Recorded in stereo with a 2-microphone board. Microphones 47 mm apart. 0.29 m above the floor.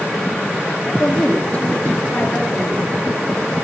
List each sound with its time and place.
0.9 s a woman speaking: 35° left (ahead or behind), 4 m